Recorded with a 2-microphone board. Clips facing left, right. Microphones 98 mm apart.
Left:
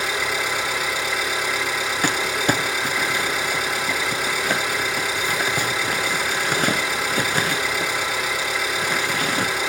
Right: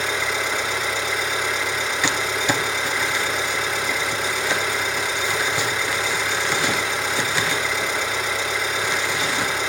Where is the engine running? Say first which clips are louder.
Even; 10° left (ahead or behind), 5 m.